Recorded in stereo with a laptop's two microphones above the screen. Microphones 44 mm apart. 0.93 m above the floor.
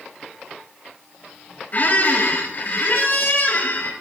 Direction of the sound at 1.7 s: 45° left (ahead or behind).